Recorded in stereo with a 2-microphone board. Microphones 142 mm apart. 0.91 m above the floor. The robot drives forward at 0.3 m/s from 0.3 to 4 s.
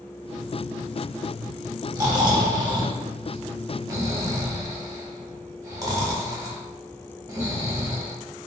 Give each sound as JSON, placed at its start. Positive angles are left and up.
{"t": 1.9, "sound": "snoring", "side_deg": -30, "distance_m": 0.6}